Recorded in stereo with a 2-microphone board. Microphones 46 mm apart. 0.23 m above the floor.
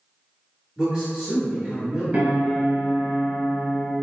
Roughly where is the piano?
Right.